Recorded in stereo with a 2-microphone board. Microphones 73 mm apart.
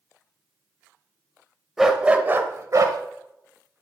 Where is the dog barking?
5° right (ahead or behind), 0.9 m; by 3.0 s 55° right (ahead or behind), 0.9 m.